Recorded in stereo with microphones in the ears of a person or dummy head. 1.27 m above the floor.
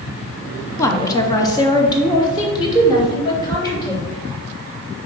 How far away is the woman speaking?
About 0.6 m.